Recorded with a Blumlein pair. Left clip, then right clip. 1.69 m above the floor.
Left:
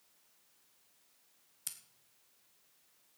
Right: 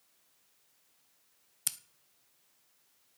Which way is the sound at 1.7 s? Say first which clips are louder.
Right 9 dB; 25° right.